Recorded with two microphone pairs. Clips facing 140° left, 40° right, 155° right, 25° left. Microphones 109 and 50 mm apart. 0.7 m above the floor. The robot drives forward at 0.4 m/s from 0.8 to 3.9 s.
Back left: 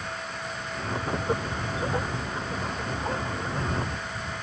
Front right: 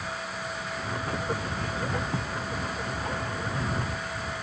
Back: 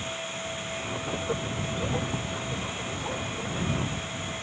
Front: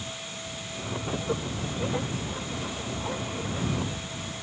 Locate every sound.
2.1 s writing: 95° right; by 2.2 s 100° right